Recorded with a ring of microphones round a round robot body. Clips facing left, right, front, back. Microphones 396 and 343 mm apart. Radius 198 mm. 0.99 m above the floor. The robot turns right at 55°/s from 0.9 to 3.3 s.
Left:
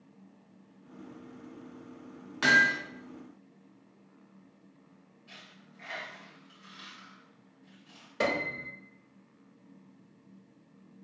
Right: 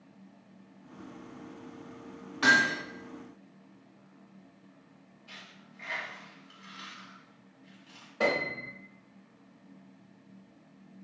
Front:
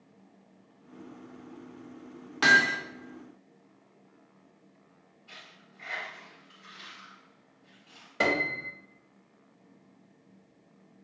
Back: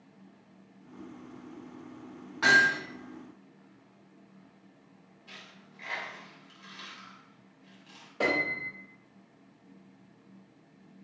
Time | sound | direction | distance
2.4 | hammering | 30° left | 1.0 m
5.3 | a dropped coin | 170° left | 1.6 m
8.2 | a piano | 50° left | 0.8 m